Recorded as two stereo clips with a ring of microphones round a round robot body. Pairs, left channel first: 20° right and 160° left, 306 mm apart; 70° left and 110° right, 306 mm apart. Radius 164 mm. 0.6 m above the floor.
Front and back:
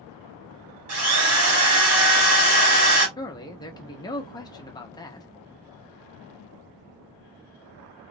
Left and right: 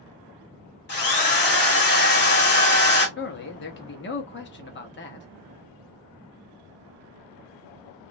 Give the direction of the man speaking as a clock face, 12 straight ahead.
10 o'clock.